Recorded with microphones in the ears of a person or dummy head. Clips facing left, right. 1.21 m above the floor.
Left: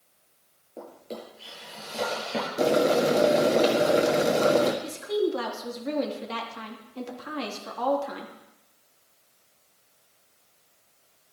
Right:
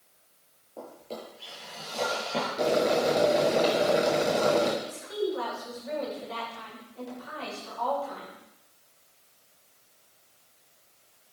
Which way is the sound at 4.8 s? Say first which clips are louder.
Left 5 dB; 80° left.